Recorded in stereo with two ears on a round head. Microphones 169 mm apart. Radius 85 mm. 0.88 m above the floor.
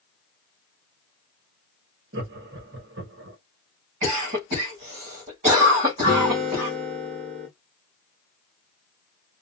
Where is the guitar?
55° right (ahead or behind), 1.5 m.